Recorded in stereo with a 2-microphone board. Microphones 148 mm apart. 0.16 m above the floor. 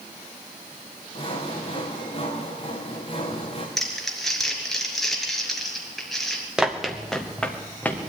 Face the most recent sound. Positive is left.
turn(degrees=10)  # may be behind; listen again after turning